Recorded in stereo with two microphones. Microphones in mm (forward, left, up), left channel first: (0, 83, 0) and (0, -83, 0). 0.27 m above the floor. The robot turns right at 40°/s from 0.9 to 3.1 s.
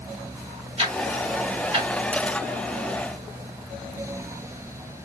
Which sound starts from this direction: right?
Ticking, at 0.8 s.